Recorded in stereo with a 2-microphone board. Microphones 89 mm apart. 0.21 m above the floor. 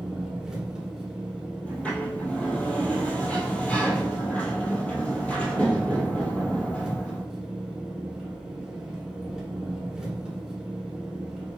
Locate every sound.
0.0 s an engine running: 5° right (ahead or behind), 1.4 m
1.6 s a sliding door: 15° left (ahead or behind), 1.1 m